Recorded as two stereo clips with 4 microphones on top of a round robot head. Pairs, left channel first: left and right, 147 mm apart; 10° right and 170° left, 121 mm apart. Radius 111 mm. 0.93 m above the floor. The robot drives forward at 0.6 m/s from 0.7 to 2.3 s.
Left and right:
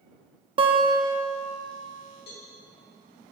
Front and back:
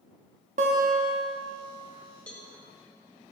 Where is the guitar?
145° right, 0.7 m; by 1.2 s 155° right, 1.0 m.